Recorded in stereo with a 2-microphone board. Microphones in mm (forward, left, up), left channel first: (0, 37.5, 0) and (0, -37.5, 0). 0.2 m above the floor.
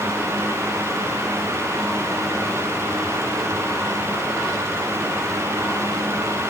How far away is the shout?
I don't hear a shout.